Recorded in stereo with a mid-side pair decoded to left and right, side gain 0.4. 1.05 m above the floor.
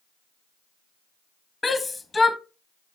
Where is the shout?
25° left, 0.9 m.